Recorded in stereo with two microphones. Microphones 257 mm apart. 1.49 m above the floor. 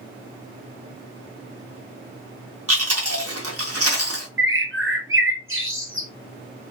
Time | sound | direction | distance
2.7 | chewing | 80° right | 1.5 m
4.4 | a bird | 60° right (ahead or behind) | 0.8 m